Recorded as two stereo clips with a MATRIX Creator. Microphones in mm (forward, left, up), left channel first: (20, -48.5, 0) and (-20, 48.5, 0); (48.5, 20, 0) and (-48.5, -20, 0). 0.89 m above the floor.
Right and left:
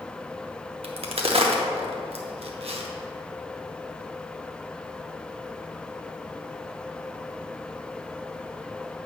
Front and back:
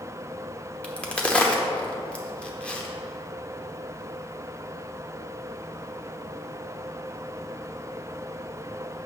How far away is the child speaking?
I don't hear a child speaking.